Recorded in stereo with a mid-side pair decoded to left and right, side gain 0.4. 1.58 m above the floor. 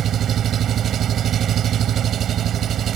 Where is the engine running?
65° right.